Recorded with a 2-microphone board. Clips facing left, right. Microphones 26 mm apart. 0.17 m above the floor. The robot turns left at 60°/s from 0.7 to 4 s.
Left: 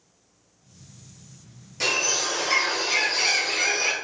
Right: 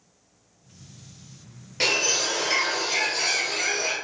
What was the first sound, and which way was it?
A bird, 145° right.